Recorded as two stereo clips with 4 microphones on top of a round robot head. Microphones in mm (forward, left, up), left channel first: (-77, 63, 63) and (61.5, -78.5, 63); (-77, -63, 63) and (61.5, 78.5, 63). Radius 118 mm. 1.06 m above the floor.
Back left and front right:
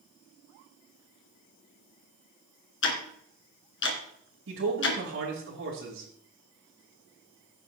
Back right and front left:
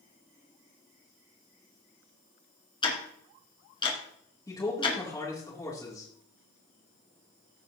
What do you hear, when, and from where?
2.8 s ticking: 160° left, 2.5 m
4.5 s a man speaking: 60° right, 3 m